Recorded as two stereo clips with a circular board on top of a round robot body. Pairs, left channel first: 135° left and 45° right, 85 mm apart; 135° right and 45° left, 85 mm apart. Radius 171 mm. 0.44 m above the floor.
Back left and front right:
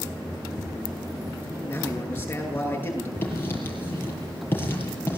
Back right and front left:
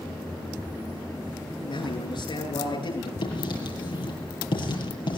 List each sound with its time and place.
1.6 s a man speaking: 155° right, 9.5 m
3.2 s writing: 160° right, 7.5 m